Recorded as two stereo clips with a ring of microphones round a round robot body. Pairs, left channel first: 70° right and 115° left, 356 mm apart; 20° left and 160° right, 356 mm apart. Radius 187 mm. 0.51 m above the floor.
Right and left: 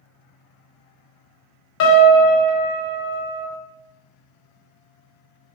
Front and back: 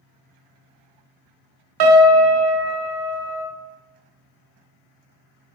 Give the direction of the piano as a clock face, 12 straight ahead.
4 o'clock.